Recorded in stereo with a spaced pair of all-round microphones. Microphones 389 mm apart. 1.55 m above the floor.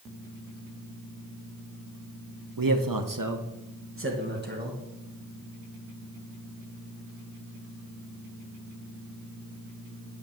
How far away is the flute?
No flute in this recording.